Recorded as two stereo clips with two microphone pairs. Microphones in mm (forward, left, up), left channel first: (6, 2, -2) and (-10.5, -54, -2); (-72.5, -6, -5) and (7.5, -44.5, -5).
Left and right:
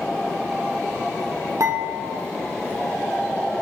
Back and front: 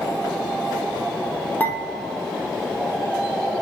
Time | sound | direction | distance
1.6 | dishes clattering | 135° right | 3 m